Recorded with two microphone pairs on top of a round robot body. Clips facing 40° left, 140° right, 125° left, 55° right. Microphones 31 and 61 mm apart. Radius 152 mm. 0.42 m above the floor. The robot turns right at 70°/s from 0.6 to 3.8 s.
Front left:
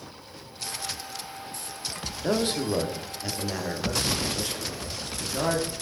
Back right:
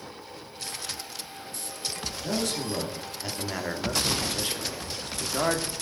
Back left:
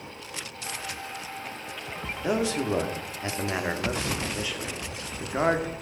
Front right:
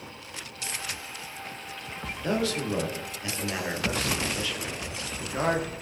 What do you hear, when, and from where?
2.2 s a man speaking: 65° left, 1.5 m; by 5.7 s 175° left, 1.5 m